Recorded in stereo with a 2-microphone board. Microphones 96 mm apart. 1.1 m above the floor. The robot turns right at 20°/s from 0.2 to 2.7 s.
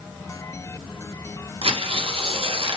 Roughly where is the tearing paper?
Right.